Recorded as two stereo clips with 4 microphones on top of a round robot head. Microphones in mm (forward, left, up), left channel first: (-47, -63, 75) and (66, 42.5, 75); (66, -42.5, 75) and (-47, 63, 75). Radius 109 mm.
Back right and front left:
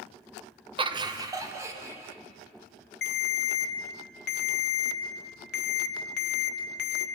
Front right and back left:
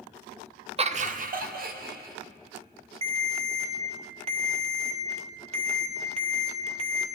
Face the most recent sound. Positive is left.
turn(degrees=-165)